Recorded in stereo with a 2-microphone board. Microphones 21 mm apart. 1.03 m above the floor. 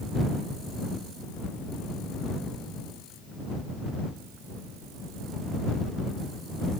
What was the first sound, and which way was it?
Only background noise.